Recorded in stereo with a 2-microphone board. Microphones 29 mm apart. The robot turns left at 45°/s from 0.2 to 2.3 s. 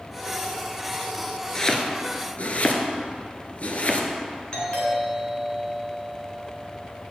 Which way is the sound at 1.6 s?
20° left (ahead or behind).